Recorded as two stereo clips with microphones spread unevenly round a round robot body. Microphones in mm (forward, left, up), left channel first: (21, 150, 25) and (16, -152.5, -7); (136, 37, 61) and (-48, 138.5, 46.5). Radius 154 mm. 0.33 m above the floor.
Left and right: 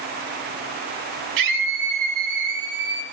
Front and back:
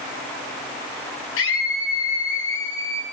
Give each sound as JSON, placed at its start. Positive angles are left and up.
{"t": 1.4, "sound": "a scream", "azimuth_deg": -70, "distance_m": 8.5}